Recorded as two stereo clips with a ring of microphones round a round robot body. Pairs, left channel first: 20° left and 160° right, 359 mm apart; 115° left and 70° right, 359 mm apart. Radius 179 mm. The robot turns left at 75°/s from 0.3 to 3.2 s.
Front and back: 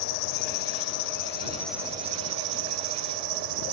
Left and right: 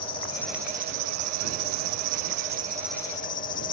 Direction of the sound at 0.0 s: 40° left.